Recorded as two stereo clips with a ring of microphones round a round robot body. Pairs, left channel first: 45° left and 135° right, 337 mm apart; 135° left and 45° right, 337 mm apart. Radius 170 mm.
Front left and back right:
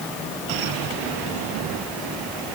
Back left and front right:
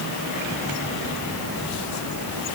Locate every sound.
Only background noise.